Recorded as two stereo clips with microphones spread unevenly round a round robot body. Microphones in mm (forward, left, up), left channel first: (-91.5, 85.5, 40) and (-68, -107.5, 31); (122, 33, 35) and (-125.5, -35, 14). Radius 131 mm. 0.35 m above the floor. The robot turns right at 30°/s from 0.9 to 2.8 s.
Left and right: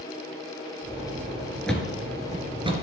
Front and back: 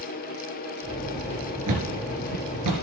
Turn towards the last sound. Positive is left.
turn(degrees=-145)